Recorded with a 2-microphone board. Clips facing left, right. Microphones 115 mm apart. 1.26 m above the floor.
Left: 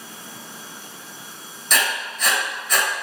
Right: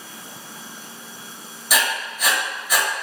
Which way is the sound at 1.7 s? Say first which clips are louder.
Right 1 dB; 10° right (ahead or behind).